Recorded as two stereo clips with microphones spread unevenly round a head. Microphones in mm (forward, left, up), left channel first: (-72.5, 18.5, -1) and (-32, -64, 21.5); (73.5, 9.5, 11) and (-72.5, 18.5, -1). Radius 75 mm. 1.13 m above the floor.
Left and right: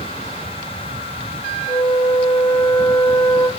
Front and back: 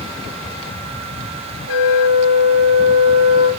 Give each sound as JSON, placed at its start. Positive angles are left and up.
{"t": 1.7, "sound": "a flute", "azimuth_deg": 175, "distance_m": 3.0}